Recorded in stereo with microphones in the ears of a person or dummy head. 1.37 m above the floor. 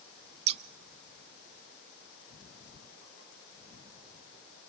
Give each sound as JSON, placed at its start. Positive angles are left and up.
{"t": 0.5, "sound": "scissors", "side_deg": -35, "distance_m": 0.6}